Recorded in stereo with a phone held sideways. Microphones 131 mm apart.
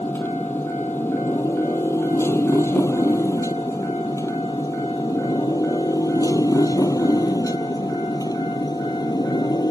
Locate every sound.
0.0 s a motorcycle: 15° left (ahead or behind); by 9.7 s 30° left (ahead or behind)